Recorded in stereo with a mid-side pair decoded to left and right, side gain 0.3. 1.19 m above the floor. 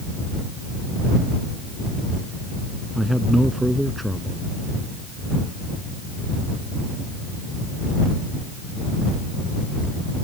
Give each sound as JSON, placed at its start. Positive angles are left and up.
{"t": 3.0, "sound": "a man speaking", "azimuth_deg": -5}